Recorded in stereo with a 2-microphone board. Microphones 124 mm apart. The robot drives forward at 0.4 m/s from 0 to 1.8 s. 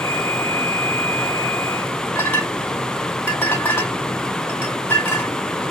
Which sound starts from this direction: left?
A clink, at 2.1 s.